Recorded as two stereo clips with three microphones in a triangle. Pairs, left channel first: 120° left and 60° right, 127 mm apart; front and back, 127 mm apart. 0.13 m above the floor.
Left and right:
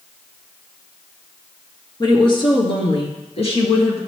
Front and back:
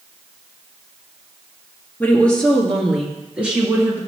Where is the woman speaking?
75° left, 1.9 m; by 4.0 s 110° left, 2 m.